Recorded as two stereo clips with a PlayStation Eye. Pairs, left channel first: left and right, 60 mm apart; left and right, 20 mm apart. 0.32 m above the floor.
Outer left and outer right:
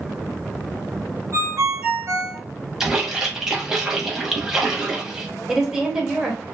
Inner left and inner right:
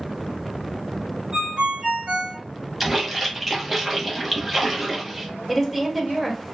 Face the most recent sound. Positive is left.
turn(degrees=-10)  # may be behind; listen again after turning